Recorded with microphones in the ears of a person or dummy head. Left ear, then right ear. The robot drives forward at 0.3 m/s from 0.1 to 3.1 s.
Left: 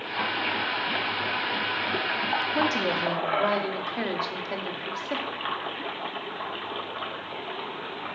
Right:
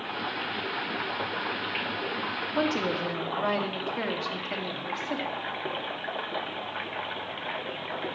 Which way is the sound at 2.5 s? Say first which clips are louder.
Left 3 dB; 15° left (ahead or behind).